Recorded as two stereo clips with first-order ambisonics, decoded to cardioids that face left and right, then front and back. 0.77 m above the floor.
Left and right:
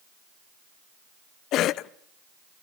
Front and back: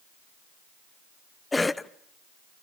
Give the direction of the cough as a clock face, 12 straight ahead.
9 o'clock.